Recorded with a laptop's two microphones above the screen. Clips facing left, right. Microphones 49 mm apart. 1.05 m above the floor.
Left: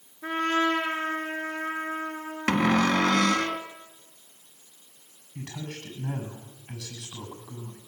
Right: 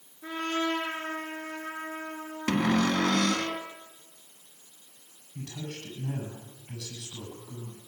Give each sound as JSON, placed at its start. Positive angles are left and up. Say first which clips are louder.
{"t": 0.2, "sound": "a trumpet", "louder": "left 5 dB", "side_deg": 55, "distance_m": 8.0}
{"t": 2.5, "sound": "a cupboard door", "louder": "left 3 dB", "side_deg": 60, "distance_m": 1.4}
{"t": 5.3, "sound": "a man speaking", "louder": "left 1 dB", "side_deg": 85, "distance_m": 8.5}